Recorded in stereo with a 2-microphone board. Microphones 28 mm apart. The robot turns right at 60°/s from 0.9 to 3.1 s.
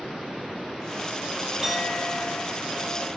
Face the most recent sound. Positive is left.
turn(degrees=65)